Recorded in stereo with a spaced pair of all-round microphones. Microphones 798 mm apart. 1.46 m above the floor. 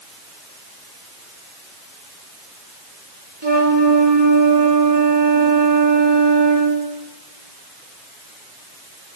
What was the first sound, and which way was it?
A flute, 30° right (ahead or behind).